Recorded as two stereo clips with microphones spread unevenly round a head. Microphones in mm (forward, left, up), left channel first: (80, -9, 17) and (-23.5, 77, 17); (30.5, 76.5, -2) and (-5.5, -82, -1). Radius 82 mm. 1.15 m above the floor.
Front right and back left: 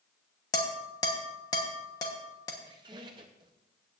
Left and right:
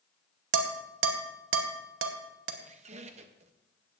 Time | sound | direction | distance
0.5 | dishes clattering | 110° right | 1.0 m
2.6 | a squeak | 155° right | 0.6 m